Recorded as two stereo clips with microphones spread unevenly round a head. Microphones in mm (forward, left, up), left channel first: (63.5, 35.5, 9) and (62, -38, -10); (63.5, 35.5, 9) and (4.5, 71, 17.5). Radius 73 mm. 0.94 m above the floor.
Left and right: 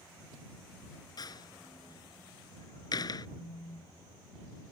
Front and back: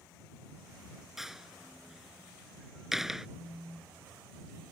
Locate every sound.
1.2 s a door slam: 65° left
3.4 s a phone buzzing: 65° left